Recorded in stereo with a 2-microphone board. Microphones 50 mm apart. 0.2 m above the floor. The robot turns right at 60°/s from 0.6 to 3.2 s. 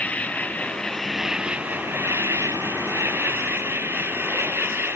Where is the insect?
150° left; by 5.0 s 55° right.